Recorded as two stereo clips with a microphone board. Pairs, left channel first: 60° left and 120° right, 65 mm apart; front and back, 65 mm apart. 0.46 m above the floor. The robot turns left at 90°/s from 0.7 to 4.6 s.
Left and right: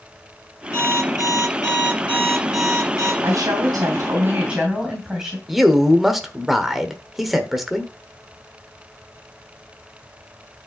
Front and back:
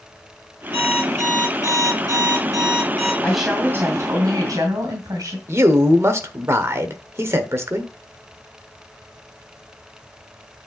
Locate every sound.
0.7 s an alarm clock: 115° left, 6 m; by 3.1 s 105° right, 6 m
3.2 s a woman speaking: 80° right, 2.5 m; by 5.4 s 160° left, 2.5 m
5.5 s a man speaking: 150° left, 1.1 m